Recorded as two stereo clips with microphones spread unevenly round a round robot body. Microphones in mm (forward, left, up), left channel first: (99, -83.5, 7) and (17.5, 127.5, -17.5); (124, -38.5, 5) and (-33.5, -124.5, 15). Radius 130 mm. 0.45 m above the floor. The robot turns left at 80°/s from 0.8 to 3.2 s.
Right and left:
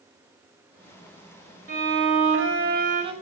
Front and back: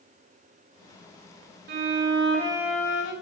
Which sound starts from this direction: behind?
A violin, at 1.7 s.